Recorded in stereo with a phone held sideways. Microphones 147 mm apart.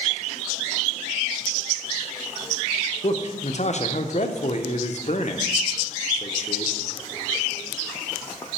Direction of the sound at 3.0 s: 55° left (ahead or behind).